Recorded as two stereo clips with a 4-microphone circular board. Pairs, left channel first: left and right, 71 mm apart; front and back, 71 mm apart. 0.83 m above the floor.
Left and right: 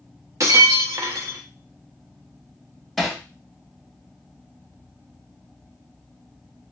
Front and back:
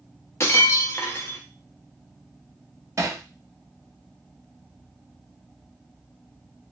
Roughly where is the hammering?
Behind.